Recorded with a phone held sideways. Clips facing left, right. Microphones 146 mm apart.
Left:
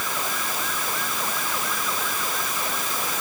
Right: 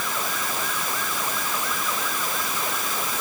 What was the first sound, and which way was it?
Only background noise.